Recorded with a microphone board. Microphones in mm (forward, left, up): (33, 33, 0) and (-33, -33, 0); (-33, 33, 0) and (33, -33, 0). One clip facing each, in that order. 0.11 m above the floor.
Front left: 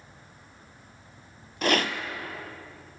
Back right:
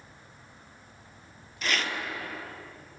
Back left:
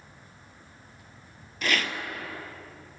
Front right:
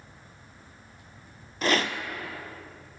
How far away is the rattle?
About 0.7 m.